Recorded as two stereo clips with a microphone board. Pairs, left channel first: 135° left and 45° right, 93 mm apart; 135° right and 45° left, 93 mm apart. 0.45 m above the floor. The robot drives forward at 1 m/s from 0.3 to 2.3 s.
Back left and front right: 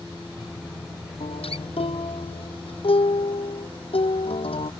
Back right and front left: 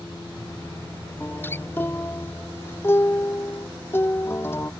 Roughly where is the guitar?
Behind left.